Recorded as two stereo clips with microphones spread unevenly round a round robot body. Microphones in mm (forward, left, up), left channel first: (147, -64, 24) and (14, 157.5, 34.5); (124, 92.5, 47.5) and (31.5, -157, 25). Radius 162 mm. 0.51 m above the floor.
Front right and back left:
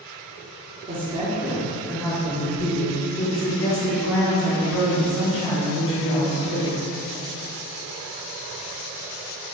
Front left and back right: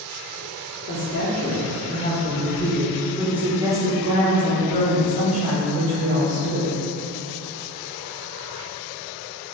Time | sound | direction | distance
0.9 | a woman speaking | 60° left | 1.0 m